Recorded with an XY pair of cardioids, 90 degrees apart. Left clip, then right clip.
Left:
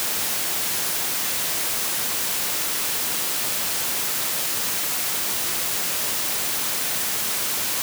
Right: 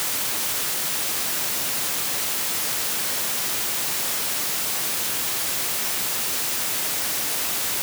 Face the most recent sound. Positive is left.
No sound to turn to.